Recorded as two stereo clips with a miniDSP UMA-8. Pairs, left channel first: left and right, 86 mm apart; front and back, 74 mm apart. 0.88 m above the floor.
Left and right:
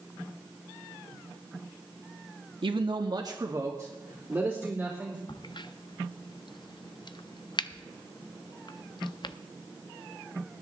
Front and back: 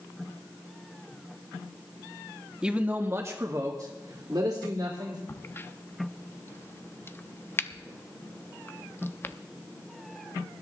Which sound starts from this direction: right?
A man speaking, at 2.6 s.